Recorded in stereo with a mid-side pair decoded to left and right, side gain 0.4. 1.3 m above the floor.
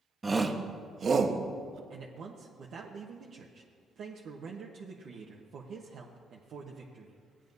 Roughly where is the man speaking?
Right.